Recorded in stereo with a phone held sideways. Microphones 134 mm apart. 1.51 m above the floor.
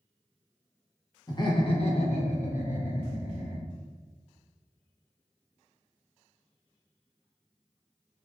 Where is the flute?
No flute in this recording.